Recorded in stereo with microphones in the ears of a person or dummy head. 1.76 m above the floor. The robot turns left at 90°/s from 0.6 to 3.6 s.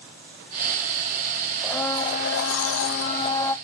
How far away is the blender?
About 0.7 m.